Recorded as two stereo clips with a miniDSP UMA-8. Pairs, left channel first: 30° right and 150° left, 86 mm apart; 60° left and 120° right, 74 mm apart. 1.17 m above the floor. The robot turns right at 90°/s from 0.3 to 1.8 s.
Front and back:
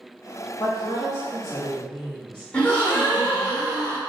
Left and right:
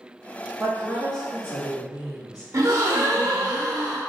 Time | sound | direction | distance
0.6 | a woman speaking | 25° right | 1.4 m
2.5 | a gasp | 100° right | 1.0 m